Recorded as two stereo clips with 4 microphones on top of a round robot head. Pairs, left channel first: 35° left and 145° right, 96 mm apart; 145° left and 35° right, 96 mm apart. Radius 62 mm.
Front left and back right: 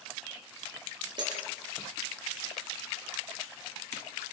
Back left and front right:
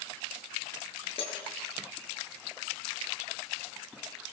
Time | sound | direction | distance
1.2 | breaking glass | 175° left | 6 m